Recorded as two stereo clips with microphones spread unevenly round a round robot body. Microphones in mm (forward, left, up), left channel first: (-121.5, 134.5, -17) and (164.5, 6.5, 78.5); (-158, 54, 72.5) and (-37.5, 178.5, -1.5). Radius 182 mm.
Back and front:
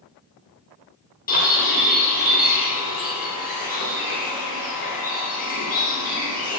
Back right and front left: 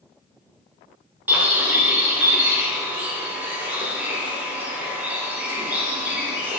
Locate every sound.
1.3 s a bird: 110° left, 2.5 m